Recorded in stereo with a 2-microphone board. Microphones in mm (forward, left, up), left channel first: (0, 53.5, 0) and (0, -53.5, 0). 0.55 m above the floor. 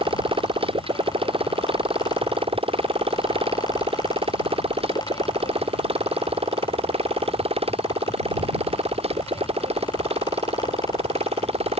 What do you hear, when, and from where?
0.0 s a motorcycle: 60° right (ahead or behind); by 11.8 s 70° right (ahead or behind)